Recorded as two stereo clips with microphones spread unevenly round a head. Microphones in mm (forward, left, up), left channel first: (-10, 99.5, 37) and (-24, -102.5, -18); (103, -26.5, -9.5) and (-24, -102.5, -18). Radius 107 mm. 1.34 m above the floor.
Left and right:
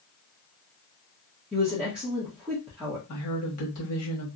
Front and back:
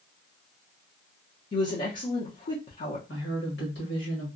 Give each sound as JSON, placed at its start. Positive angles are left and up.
{"t": 1.5, "sound": "a woman speaking", "azimuth_deg": -5, "distance_m": 0.9}
{"t": 3.1, "sound": "a woman speaking", "azimuth_deg": 65, "distance_m": 1.4}